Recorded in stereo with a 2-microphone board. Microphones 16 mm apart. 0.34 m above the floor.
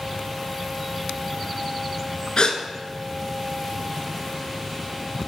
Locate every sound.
2.4 s a gasp: 60° left (ahead or behind), 0.7 m